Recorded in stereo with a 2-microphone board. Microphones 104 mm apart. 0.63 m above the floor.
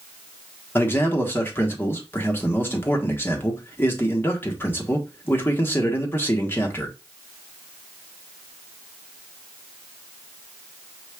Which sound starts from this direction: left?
A man speaking, at 0.8 s.